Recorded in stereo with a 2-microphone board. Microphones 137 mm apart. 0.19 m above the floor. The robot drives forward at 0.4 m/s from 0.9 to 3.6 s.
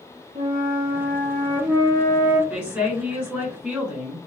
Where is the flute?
65° right (ahead or behind), 1.8 m; by 2.4 s 75° right (ahead or behind), 1.7 m.